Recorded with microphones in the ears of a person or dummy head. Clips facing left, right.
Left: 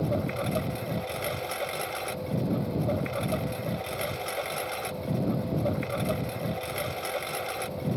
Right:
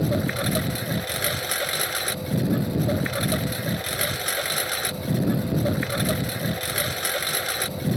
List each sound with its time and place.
0.0 s a lawn mower: 20° right (ahead or behind)